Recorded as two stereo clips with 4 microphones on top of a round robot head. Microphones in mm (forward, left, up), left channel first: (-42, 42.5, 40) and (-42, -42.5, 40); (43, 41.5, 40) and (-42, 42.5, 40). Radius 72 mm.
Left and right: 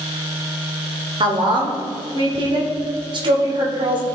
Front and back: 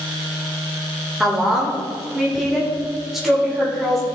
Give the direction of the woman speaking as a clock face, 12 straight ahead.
3 o'clock.